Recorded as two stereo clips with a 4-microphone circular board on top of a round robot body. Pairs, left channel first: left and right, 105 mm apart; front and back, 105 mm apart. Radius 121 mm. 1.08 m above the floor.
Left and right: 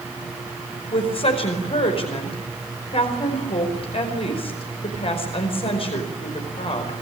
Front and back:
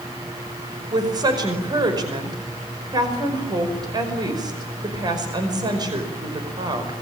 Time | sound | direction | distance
0.9 | a woman speaking | 125° left | 5 m